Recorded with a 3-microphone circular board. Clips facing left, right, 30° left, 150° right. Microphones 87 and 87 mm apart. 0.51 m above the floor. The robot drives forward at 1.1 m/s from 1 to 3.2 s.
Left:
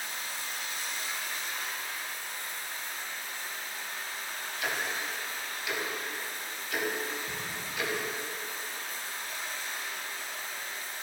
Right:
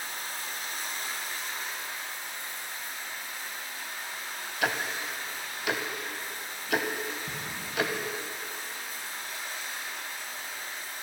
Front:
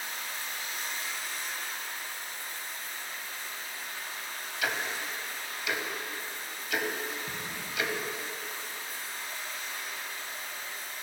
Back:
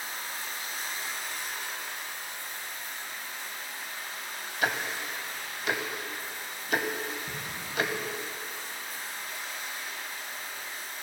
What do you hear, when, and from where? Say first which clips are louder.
0.0 s running water: right 1 dB, back 1 dB; 115° right, 1.3 m; by 11.0 s 165° right, 3 m
4.6 s ticking: right 3 dB, back 2 dB; 100° right, 0.6 m
7.3 s an explosion: even, even; 55° right, 2.0 m